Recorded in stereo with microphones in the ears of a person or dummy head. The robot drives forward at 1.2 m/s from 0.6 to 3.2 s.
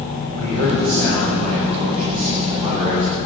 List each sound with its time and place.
0.3 s a man speaking: 50° right (ahead or behind), 6 m; by 3.1 s 35° right (ahead or behind), 8 m